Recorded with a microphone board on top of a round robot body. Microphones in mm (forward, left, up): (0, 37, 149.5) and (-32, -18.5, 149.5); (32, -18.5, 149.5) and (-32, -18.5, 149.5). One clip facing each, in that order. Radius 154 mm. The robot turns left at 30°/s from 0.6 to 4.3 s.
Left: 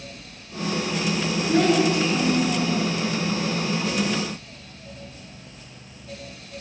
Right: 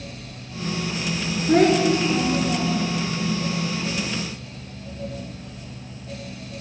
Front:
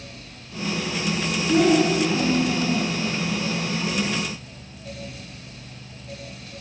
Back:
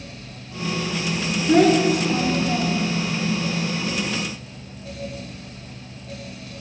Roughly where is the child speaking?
Behind.